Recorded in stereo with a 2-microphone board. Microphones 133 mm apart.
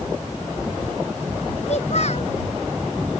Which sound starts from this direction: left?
A child speaking, at 1.7 s.